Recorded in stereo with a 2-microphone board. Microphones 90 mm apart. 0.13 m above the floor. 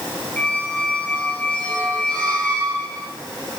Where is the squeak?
15° left (ahead or behind), 2 m.